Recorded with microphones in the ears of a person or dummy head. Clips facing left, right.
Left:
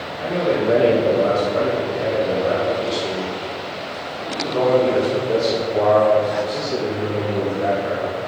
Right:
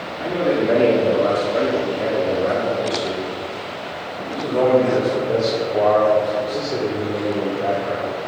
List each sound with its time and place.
0.2 s a man speaking: 55° right (ahead or behind), 3.5 m; by 8.2 s 25° left (ahead or behind), 3 m